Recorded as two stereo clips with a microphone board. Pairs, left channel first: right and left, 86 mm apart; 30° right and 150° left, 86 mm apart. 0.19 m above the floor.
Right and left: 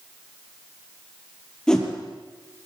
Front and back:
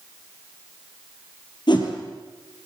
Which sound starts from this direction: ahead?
A whoosh, at 1.7 s.